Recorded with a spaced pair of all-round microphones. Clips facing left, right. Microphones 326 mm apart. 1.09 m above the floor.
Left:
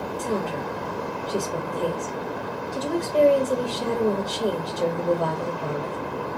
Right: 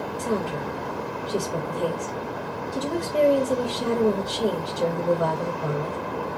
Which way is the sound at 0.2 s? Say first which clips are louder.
Right 1 dB; 15° right (ahead or behind).